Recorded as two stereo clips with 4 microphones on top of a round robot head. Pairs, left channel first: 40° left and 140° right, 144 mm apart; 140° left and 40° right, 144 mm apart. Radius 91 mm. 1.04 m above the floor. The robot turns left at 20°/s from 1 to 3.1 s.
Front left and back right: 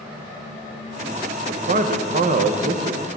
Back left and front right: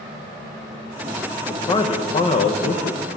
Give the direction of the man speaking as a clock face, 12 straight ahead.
5 o'clock.